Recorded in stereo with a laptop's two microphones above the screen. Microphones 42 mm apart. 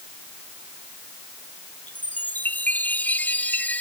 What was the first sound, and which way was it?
A chime, 45° left (ahead or behind).